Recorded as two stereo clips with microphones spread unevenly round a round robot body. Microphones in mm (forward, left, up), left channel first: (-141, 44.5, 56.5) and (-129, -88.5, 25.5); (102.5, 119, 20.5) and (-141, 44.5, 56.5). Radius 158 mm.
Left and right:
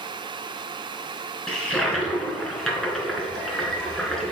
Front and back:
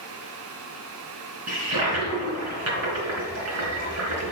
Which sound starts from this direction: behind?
A toilet flushing, at 1.5 s.